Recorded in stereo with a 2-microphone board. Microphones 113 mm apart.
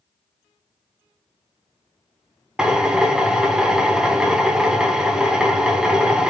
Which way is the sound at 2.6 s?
5° right (ahead or behind).